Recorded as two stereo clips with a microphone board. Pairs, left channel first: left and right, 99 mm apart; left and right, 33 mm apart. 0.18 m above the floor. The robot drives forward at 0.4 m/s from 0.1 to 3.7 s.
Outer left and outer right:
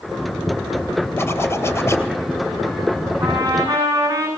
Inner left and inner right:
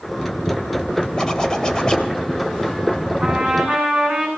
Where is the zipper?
25° left (ahead or behind), 3 m; by 2.1 s 30° left (ahead or behind), 2.5 m.